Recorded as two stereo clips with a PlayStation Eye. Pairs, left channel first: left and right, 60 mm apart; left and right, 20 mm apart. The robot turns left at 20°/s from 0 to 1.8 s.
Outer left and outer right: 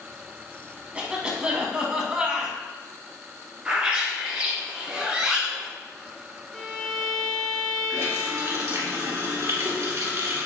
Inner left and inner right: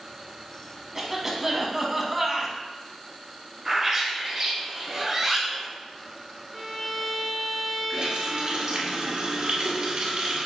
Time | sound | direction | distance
0.9 | a cough | 20° right (ahead or behind) | 1.1 m
3.6 | a bird | 20° right (ahead or behind) | 1.6 m
6.5 | a violin | 10° left (ahead or behind) | 0.9 m
7.9 | a running tap | 55° right (ahead or behind) | 1.7 m